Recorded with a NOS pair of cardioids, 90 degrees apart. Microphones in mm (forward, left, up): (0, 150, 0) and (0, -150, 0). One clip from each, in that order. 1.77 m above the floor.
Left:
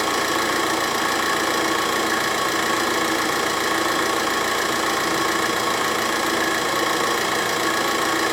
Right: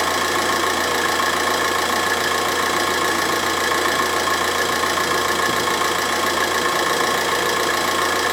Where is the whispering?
I don't hear whispering.